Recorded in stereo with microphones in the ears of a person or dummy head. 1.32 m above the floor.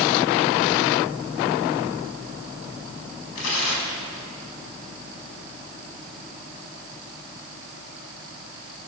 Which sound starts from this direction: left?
Tearing paper, at 3.4 s.